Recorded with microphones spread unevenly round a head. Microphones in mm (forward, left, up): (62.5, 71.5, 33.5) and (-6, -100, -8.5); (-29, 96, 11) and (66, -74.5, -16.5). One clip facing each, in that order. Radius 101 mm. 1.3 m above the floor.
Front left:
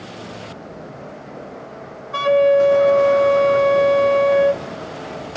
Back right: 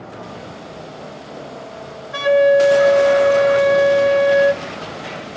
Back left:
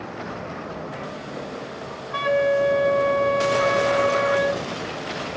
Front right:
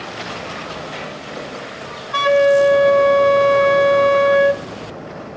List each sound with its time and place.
2.1 s a flute: 45° right, 0.7 m